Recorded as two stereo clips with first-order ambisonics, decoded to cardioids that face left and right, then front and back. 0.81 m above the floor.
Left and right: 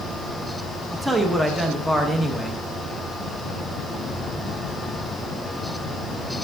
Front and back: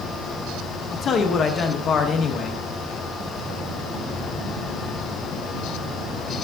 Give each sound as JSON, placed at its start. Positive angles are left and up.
{"t": 0.9, "sound": "a man speaking", "azimuth_deg": -10, "distance_m": 0.6}